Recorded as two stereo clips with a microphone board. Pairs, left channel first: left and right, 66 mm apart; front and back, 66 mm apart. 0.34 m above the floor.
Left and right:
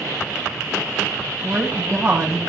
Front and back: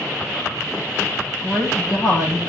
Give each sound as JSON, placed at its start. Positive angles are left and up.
{"t": 1.4, "sound": "a woman speaking", "azimuth_deg": -35, "distance_m": 9.0}